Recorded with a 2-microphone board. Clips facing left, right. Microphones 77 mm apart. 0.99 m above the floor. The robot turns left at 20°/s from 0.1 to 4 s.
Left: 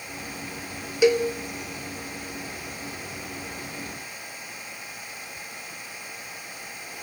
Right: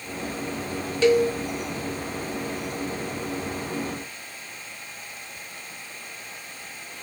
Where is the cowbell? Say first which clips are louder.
Right 1 dB; 15° left (ahead or behind), 1.0 m.